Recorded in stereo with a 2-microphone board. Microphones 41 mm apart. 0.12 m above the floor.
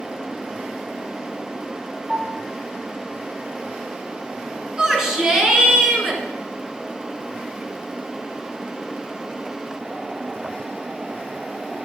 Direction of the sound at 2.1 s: 40° right (ahead or behind).